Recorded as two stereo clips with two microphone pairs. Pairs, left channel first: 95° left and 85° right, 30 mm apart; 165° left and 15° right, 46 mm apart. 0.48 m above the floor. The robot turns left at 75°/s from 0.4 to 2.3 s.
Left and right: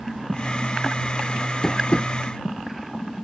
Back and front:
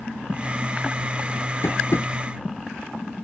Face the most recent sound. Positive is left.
turn(degrees=125)